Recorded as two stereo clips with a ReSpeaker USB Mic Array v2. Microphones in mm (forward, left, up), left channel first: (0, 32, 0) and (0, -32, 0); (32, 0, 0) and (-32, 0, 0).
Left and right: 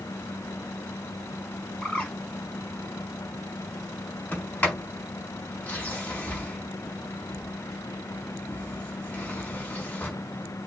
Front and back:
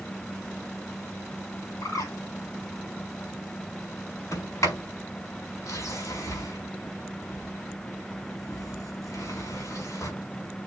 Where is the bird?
20° left, 5.5 m.